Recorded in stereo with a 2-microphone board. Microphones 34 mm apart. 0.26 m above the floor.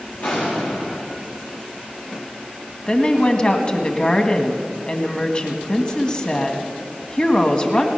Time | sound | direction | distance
0.2 | an explosion | 65° left (ahead or behind) | 6 m
2.9 | a woman speaking | 30° left (ahead or behind) | 1.6 m